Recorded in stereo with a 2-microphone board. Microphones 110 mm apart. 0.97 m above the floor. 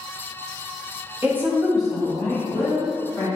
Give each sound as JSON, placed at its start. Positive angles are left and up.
{"t": 1.2, "sound": "a woman speaking", "side_deg": -20, "distance_m": 0.8}